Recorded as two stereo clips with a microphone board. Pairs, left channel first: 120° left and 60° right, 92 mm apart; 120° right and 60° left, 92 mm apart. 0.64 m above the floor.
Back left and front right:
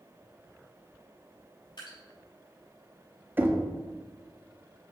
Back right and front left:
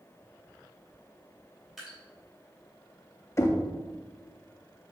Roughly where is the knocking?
Right.